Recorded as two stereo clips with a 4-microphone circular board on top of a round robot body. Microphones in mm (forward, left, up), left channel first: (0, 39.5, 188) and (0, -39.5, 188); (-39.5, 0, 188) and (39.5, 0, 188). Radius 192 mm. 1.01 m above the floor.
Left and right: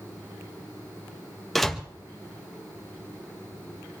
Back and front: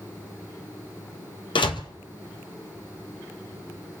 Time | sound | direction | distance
1.6 | a door slam | straight behind | 1.3 m